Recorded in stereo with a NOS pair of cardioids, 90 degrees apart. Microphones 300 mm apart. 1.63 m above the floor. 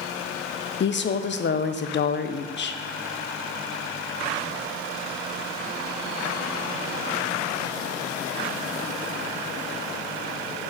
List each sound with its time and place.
0.8 s a woman speaking: 40° left, 0.9 m